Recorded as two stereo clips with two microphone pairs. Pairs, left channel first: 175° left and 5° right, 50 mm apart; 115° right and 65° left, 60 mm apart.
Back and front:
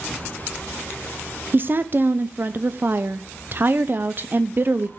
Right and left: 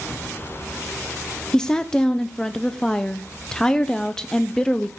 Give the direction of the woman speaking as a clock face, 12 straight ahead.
1 o'clock.